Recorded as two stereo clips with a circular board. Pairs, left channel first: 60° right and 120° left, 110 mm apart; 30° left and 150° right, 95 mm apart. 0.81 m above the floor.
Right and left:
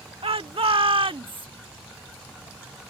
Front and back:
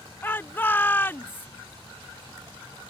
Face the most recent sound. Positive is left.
turn(degrees=95)